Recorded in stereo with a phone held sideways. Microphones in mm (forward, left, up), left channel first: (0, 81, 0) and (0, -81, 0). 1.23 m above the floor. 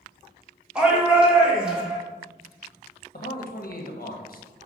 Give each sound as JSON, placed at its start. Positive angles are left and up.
{"t": 0.8, "sound": "a shout", "side_deg": -5, "distance_m": 1.7}
{"t": 3.1, "sound": "a man speaking", "side_deg": 60, "distance_m": 1.3}